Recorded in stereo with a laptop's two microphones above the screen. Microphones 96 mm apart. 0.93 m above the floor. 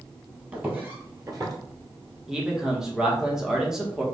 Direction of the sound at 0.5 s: 15° right (ahead or behind).